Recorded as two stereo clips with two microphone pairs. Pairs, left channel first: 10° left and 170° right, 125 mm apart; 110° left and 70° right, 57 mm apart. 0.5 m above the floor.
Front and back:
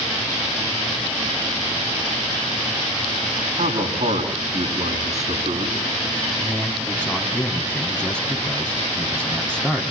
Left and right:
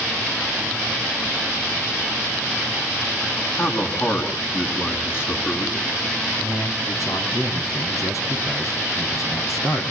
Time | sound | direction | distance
3.6 | a man speaking | 160° left | 6.5 m
6.4 | a man speaking | 90° left | 4.5 m